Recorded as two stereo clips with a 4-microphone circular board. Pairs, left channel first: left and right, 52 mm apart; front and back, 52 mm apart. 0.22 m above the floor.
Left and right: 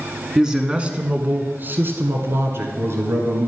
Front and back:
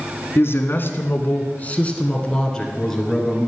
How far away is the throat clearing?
I don't hear throat clearing.